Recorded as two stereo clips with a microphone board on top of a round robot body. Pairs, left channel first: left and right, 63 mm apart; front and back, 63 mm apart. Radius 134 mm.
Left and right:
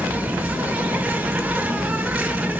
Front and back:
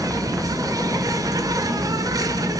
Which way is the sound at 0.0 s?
150° right.